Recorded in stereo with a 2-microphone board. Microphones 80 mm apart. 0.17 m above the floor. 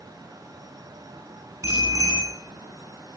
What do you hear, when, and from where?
1.6 s a bicycle bell: 40° right (ahead or behind), 9 m